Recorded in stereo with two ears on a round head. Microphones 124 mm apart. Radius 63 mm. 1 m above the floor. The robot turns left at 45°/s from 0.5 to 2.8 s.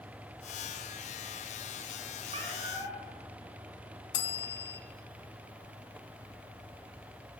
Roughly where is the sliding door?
I don't hear a sliding door.